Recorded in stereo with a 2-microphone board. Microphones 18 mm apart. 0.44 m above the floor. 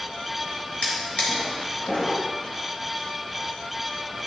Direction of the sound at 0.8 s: 85° left.